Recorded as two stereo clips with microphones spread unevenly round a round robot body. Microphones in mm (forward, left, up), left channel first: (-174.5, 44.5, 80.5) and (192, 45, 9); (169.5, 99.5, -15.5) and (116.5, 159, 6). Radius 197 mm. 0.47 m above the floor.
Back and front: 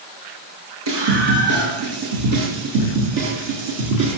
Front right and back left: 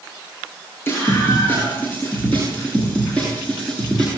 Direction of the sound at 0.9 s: 15° left.